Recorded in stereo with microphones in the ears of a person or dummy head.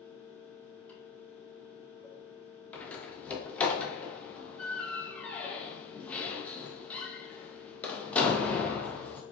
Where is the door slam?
10° left (ahead or behind), 0.6 m.